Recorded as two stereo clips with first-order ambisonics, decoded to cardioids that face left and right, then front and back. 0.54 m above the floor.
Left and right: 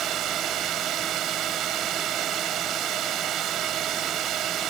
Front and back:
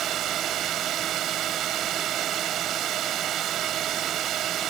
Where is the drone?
135° right.